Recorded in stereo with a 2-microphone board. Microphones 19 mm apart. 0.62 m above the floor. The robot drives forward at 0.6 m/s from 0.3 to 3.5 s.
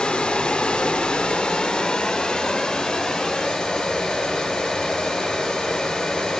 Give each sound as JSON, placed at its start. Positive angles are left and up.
{"t": 0.0, "sound": "running water", "side_deg": 65, "distance_m": 1.3}